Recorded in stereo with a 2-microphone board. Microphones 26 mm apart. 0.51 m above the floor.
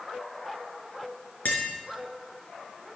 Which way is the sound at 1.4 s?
85° left.